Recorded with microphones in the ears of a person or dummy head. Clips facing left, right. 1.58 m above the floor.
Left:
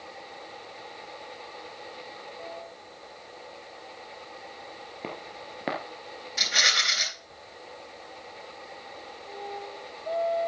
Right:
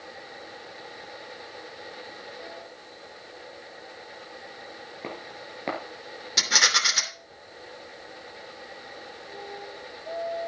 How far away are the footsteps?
About 1.9 m.